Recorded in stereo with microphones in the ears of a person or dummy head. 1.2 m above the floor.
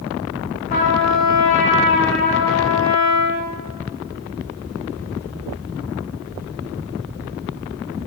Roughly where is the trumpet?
Left.